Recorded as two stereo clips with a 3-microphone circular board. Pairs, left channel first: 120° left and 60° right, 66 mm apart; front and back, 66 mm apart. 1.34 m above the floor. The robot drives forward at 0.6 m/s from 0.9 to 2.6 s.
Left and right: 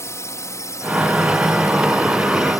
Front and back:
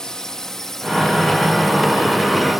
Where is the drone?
80° left; by 2.6 s 95° left.